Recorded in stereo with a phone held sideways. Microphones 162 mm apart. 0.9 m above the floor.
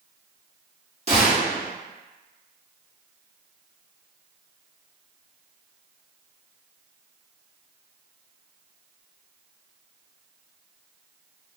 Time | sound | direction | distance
1.1 | a gunshot | 40° right (ahead or behind) | 1.2 m